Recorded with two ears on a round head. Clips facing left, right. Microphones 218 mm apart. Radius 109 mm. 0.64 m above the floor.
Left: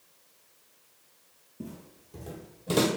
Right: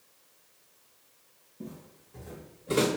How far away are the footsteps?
About 1.0 m.